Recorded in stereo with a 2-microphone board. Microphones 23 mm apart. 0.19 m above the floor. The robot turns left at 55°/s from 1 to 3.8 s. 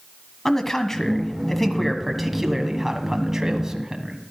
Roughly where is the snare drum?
I don't hear a snare drum.